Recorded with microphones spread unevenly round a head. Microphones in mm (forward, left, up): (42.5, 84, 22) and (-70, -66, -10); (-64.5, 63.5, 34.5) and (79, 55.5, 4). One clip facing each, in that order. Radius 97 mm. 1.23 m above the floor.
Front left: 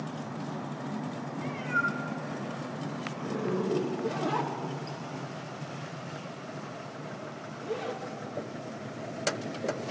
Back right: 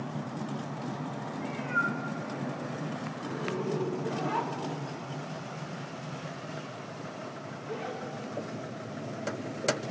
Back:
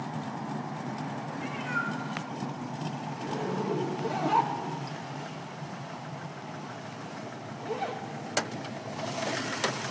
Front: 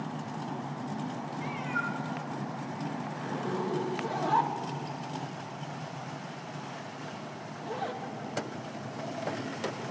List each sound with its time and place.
1.4 s a cat meowing: 75° left, 1.9 m
3.1 s a zipper: 95° left, 1.1 m